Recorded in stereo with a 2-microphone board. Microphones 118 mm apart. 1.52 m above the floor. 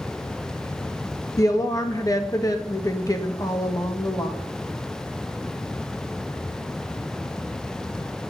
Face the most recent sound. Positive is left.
turn(degrees=30)  # may be behind; listen again after turning